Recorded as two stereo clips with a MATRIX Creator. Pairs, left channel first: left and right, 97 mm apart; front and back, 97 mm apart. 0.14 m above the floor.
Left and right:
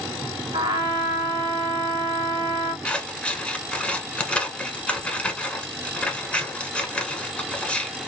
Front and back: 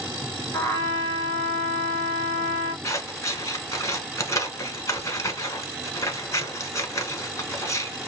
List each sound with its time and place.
0.5 s a trumpet: 60° right, 1.1 m
2.8 s scissors: 20° left, 0.8 m